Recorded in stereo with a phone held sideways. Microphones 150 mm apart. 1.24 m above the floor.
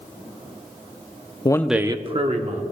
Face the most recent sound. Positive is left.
turn(degrees=-55)  # may be behind; listen again after turning